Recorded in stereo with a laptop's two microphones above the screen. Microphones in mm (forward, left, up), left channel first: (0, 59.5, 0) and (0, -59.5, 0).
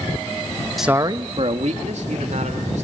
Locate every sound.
0.8 s a man speaking: centre (ahead or behind), 0.6 m; by 2.9 s 75° right (ahead or behind), 3.5 m